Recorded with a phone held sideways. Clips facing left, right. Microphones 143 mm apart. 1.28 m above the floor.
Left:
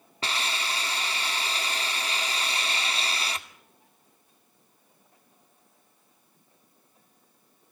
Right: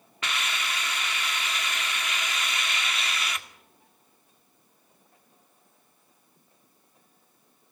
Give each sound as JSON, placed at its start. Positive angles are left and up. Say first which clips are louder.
{"t": 0.2, "sound": "a hiss", "louder": "left 1 dB", "side_deg": 30, "distance_m": 1.9}